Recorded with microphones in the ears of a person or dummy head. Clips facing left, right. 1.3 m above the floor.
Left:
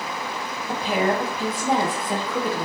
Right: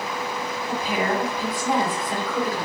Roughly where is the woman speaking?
Left.